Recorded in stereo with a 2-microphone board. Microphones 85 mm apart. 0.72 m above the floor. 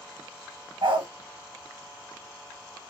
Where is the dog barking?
80° right, 1.8 m.